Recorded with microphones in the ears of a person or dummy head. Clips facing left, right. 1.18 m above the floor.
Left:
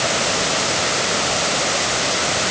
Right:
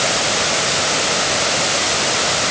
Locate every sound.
Only background noise.